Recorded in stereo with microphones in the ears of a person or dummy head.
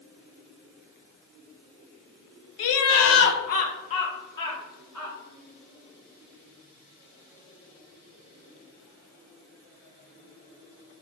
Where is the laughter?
75° left (ahead or behind), 0.6 m; by 5.2 s 10° left (ahead or behind), 1.4 m.